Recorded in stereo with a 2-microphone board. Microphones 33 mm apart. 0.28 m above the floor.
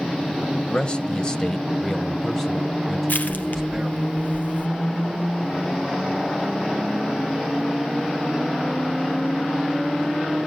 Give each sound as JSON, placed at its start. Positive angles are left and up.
{"t": 0.7, "sound": "a man speaking", "side_deg": 30, "distance_m": 1.2}
{"t": 3.1, "sound": "crushing", "side_deg": 60, "distance_m": 3.0}